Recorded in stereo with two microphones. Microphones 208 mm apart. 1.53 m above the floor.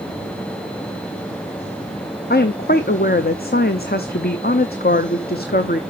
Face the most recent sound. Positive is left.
turn(degrees=55)  # may be behind; listen again after turning